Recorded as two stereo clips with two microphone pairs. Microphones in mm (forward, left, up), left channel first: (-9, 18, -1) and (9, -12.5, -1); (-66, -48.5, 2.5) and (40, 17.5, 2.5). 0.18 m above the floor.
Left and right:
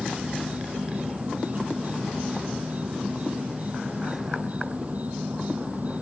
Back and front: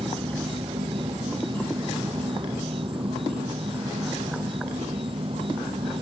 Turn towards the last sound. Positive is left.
turn(degrees=-15)